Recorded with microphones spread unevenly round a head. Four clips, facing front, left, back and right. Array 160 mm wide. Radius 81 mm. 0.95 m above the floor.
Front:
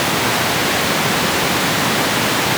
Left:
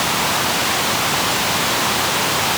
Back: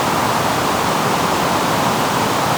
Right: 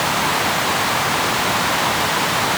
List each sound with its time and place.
Only background noise.